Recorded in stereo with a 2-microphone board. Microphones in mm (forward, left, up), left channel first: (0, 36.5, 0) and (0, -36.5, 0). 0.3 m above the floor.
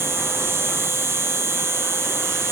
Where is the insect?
35° right (ahead or behind).